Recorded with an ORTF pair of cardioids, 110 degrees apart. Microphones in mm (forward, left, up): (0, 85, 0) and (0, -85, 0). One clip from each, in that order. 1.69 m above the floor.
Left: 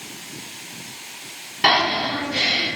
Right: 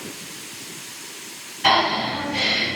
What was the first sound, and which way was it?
Breathing, 70° left.